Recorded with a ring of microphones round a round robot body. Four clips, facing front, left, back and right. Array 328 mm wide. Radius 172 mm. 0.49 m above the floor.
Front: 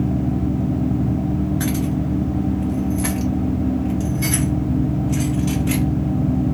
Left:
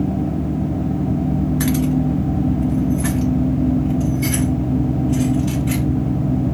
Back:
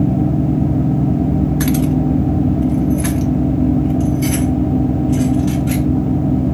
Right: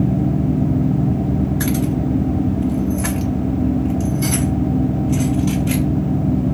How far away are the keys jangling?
About 1.0 m.